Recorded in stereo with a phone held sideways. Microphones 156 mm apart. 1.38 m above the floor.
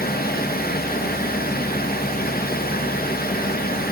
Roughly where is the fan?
Left.